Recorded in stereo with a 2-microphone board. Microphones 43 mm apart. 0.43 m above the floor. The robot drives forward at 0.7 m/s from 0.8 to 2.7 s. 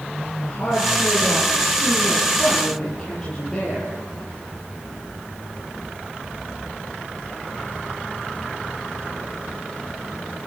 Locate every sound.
0.4 s a woman speaking: 15° left (ahead or behind), 10 m